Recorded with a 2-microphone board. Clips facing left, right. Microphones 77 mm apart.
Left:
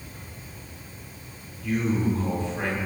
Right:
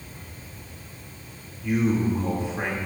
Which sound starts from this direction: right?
A man speaking, at 1.6 s.